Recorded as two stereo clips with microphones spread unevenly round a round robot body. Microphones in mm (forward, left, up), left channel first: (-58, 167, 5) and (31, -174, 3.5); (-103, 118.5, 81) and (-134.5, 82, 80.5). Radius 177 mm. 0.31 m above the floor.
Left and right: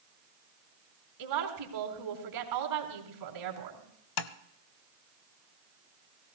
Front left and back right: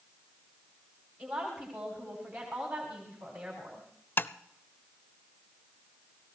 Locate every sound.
1.2 s a woman speaking: 45° right, 3.5 m
4.2 s tapping: 100° left, 0.7 m